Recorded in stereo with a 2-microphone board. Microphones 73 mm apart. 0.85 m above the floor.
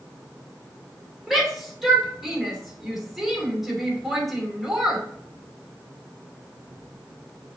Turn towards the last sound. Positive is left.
turn(degrees=0)  # may be behind; listen again after turning